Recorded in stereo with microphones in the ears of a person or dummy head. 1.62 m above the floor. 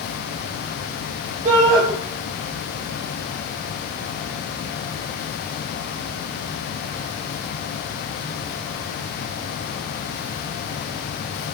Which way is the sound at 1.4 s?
45° right (ahead or behind).